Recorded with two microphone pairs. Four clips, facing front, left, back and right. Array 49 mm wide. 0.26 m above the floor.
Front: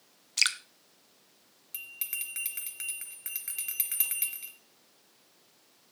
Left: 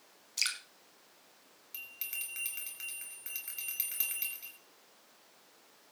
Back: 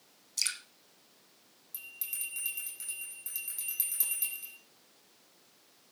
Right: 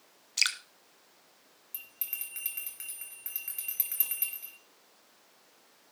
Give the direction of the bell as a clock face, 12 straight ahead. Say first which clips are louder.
Left 4 dB, front 5 dB; 12 o'clock.